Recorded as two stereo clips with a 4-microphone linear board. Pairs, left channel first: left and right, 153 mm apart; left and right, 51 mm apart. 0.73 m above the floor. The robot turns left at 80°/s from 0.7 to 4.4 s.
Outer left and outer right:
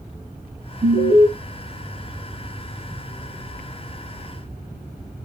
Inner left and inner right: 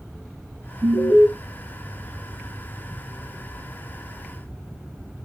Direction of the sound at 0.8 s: 70° right.